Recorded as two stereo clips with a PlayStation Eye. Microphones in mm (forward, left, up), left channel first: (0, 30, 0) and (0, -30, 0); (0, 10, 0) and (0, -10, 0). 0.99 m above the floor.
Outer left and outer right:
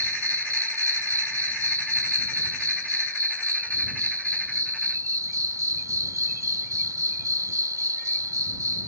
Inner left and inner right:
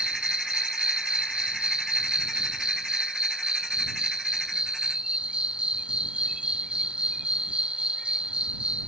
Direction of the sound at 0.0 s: 80° right.